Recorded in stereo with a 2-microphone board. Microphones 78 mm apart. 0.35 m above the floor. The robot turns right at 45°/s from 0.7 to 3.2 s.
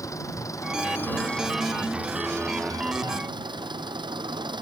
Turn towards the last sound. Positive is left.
turn(degrees=-110)